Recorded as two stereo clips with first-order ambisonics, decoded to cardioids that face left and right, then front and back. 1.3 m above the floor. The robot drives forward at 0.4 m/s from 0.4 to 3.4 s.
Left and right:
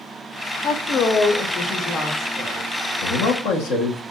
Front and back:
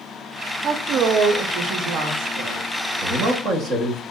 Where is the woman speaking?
125° left, 0.6 m; by 2.6 s 160° left, 1.1 m.